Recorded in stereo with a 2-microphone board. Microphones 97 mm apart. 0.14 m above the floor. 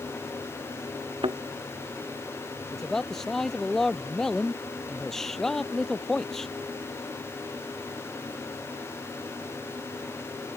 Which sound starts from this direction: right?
A thud, at 1.2 s.